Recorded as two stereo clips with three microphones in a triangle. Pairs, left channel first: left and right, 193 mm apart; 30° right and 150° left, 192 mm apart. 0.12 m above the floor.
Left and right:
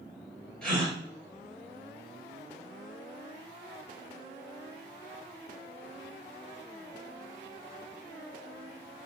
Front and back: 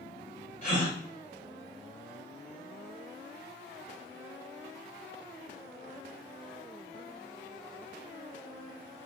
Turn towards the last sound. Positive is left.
turn(degrees=5)